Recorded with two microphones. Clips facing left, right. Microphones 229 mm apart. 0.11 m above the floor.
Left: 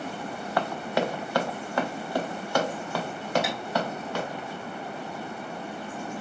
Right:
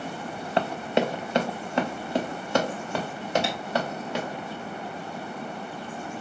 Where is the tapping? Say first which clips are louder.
Right 1 dB; 30° right (ahead or behind), 1.4 m.